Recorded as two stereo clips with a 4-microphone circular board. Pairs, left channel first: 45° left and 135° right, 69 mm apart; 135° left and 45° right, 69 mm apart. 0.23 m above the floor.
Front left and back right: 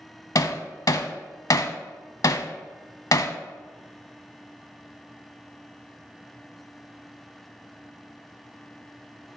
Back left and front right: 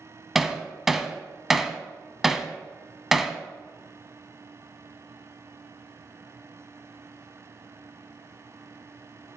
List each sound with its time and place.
0.3 s hammering: 40° left, 0.5 m